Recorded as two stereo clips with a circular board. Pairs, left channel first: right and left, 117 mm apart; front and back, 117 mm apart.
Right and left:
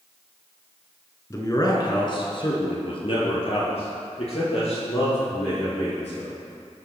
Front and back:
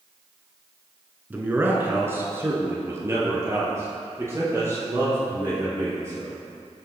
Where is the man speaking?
120° right, 1.2 m; by 6.3 s 115° right, 4.5 m.